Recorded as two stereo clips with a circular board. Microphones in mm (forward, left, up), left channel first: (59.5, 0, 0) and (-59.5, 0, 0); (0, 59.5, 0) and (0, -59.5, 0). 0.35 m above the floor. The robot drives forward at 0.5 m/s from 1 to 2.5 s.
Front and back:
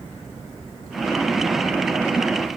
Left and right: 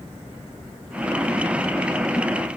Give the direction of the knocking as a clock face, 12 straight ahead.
No knocking in this recording.